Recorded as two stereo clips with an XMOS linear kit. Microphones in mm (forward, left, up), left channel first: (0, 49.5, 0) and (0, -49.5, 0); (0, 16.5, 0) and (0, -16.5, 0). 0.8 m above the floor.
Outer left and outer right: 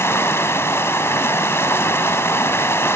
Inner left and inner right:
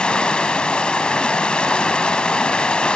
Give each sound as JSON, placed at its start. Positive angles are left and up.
{"t": 0.0, "sound": "running water", "side_deg": 25, "distance_m": 0.8}